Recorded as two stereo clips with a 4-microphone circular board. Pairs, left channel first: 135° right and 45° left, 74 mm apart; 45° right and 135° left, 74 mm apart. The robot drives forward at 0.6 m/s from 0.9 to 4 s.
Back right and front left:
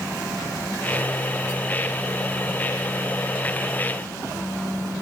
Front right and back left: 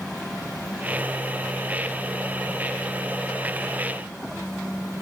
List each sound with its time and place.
Only background noise.